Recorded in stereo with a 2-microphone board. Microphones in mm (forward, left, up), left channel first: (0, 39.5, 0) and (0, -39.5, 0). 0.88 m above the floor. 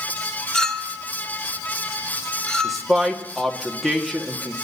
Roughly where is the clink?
Centre.